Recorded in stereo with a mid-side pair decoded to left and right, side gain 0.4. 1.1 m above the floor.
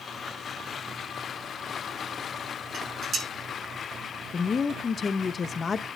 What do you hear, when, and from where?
2.7 s dishes clattering: 60° right, 8.5 m
4.3 s a woman speaking: 40° left, 0.8 m